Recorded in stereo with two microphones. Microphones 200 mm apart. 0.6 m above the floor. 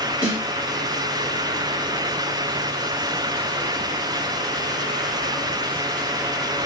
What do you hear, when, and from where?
0.2 s a snare drum: 10° right (ahead or behind), 1.6 m